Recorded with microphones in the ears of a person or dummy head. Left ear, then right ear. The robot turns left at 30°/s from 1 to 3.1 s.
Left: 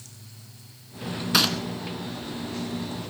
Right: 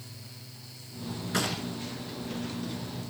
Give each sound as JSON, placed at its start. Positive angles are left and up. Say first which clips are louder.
{"t": 1.3, "sound": "a gunshot", "louder": "left 9 dB", "side_deg": 45, "distance_m": 3.0}